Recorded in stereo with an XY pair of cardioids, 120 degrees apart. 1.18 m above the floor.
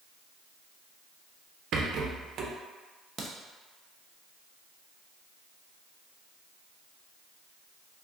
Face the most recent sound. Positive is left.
turn(degrees=-25)